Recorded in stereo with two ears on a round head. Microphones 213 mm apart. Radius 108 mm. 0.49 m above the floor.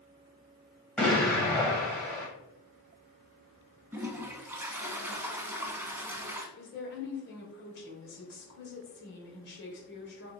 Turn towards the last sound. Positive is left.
turn(degrees=45)  # may be behind; listen again after turning